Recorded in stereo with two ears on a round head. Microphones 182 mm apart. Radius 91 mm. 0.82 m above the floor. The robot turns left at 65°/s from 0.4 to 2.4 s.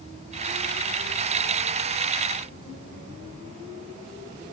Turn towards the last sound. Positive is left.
No sound to turn to.